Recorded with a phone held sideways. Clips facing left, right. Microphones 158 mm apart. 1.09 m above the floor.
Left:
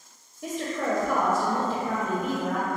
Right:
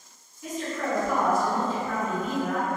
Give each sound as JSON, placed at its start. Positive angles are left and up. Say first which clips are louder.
{"t": 0.4, "sound": "a woman speaking", "louder": "left 2 dB", "side_deg": 45, "distance_m": 0.6}